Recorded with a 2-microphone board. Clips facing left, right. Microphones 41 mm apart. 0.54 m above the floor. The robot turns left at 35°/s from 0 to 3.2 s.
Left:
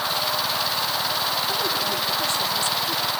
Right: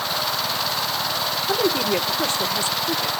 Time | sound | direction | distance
1.5 | a woman speaking | 70° right | 1.2 m